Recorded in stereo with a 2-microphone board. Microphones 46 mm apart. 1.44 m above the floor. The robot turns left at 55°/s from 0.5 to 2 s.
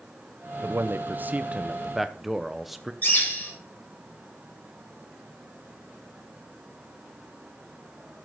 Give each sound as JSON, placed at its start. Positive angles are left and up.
{"t": 0.6, "sound": "a man speaking", "azimuth_deg": -100, "distance_m": 0.9}
{"t": 3.0, "sound": "a bird", "side_deg": 40, "distance_m": 4.5}